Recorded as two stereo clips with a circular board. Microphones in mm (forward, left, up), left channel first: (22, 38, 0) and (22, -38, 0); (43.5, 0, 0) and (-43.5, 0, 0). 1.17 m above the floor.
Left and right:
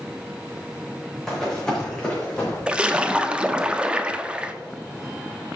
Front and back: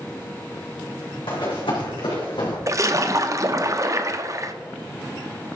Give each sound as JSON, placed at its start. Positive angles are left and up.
{"t": 1.3, "sound": "running footsteps", "azimuth_deg": 5, "distance_m": 4.0}
{"t": 2.7, "sound": "a splash", "azimuth_deg": -160, "distance_m": 0.7}